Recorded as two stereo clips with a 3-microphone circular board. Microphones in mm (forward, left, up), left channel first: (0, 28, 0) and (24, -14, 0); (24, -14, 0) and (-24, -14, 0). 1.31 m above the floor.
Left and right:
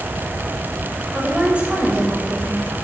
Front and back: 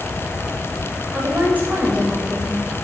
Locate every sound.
1.1 s a woman speaking: 130° right, 6.5 m; by 2.8 s 115° right, 6 m